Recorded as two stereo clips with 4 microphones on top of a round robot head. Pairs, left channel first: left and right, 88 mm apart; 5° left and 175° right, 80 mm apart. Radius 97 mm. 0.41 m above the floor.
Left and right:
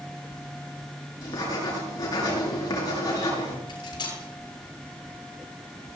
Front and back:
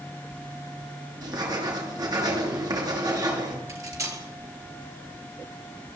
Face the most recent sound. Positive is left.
turn(degrees=135)